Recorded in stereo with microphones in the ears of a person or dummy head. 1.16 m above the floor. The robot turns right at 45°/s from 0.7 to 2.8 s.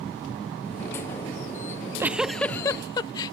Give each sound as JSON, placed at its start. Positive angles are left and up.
{"t": 1.7, "sound": "a giggle", "azimuth_deg": -30}